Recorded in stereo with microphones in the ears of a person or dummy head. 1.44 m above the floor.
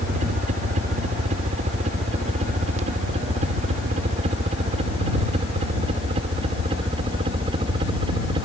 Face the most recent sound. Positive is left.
turn(degrees=-30)  # may be behind; listen again after turning